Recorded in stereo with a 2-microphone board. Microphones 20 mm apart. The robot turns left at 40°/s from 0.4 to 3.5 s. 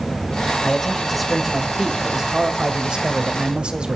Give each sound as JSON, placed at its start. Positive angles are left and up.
{"t": 0.6, "sound": "a man speaking", "azimuth_deg": 15, "distance_m": 1.6}